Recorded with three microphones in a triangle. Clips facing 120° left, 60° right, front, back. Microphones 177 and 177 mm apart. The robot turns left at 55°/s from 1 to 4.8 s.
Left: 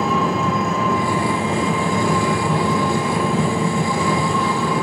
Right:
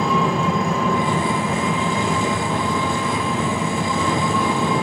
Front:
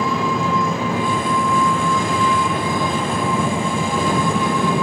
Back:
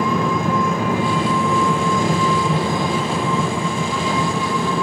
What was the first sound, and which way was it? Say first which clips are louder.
An engine running: even, back 1 dB; 155° right.